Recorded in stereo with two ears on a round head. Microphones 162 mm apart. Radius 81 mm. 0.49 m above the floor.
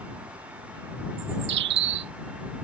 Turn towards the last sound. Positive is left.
turn(degrees=-70)  # may be behind; listen again after turning